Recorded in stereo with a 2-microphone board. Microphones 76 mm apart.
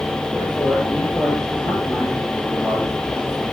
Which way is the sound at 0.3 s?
20° right (ahead or behind).